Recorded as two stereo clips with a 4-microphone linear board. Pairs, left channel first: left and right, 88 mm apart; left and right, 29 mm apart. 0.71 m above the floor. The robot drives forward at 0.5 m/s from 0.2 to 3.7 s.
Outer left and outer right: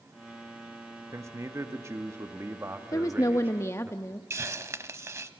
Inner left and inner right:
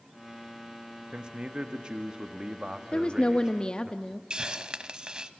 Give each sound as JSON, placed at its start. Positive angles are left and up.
{"t": 1.1, "sound": "a man speaking", "side_deg": -35, "distance_m": 1.2}
{"t": 2.9, "sound": "a woman speaking", "side_deg": 40, "distance_m": 0.7}
{"t": 4.3, "sound": "a hiss", "side_deg": -35, "distance_m": 0.8}